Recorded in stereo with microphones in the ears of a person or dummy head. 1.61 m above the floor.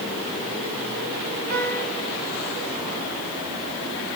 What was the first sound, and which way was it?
A piano, 50° right (ahead or behind).